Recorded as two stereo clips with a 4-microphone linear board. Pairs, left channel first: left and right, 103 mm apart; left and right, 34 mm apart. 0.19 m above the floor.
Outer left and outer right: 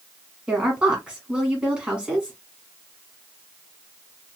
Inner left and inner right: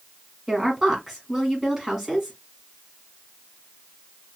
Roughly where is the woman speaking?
Centre.